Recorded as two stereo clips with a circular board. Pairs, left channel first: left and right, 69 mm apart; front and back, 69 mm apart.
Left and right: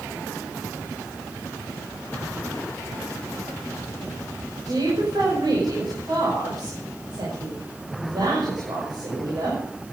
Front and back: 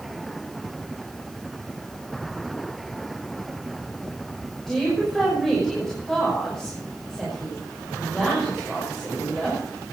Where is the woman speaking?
85° right, 6 m.